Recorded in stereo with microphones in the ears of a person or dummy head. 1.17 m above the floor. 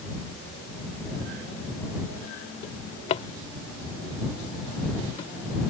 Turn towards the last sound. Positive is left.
turn(degrees=35)  # may be behind; listen again after turning